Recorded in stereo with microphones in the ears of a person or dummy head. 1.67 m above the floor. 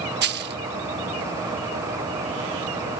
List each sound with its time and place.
0.2 s a dropped coin: 50° right (ahead or behind)